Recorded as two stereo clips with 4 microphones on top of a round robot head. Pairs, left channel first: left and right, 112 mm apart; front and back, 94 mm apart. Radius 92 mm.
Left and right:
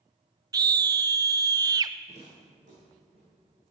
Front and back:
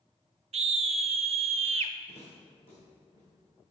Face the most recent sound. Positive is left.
turn(degrees=-65)